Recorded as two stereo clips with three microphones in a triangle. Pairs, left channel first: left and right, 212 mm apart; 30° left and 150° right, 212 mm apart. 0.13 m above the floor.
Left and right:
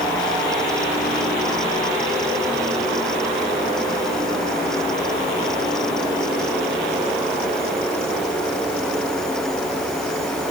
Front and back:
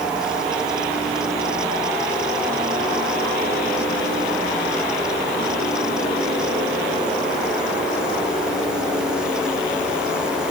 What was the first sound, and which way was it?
Only background noise.